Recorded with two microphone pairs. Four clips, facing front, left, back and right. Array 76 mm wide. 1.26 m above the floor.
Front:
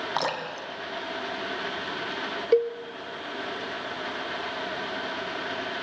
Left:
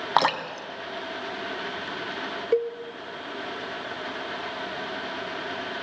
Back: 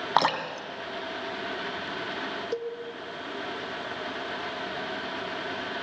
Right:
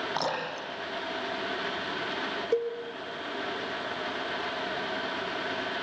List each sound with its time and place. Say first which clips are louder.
0.2 s dripping: left 8 dB, back 7 dB; 115° left, 2.0 m
2.5 s a cowbell: left 5 dB, front 13 dB; 35° left, 0.7 m